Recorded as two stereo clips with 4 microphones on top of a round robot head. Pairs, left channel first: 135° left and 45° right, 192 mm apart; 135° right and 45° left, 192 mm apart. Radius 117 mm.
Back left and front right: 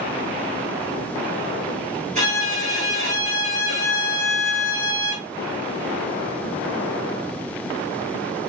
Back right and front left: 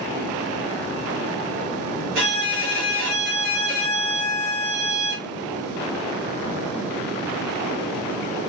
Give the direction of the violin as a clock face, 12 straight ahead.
12 o'clock.